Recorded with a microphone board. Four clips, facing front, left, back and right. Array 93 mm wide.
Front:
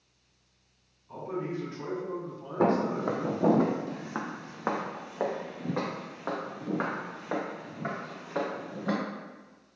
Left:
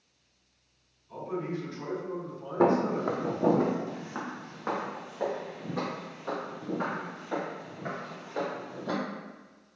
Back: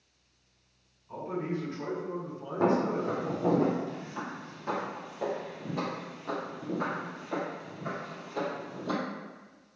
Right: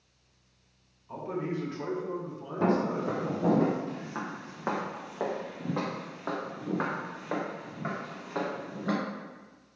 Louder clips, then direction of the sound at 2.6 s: Left 3 dB, front 1 dB; 65° left.